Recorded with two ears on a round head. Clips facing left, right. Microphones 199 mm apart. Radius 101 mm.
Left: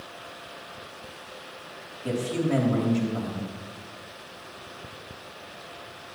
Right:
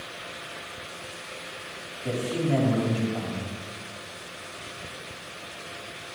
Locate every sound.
2.0 s a man speaking: 20° left (ahead or behind), 3 m